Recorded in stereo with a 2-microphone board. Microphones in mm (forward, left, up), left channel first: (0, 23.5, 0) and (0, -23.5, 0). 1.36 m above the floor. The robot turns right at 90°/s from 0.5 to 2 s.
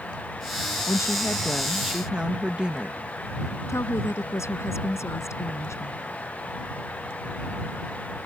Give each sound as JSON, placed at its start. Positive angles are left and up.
{"t": 0.9, "sound": "a woman speaking", "azimuth_deg": 95}
{"t": 3.7, "sound": "a woman speaking", "side_deg": 75}